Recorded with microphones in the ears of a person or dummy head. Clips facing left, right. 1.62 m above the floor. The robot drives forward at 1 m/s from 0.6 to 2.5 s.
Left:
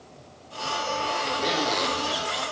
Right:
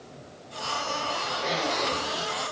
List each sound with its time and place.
1.4 s a zipper: 50° left (ahead or behind), 2.5 m; by 2.5 s 65° left (ahead or behind), 2 m